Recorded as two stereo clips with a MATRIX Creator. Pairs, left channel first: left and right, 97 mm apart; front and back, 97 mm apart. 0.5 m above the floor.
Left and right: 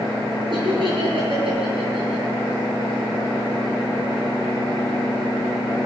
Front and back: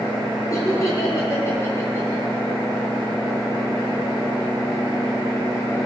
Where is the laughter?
55° right, 8 m; by 2.2 s 70° right, 8 m.